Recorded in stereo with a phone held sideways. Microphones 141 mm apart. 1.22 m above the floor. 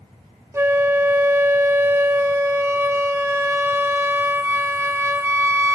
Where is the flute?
20° right (ahead or behind), 0.7 m.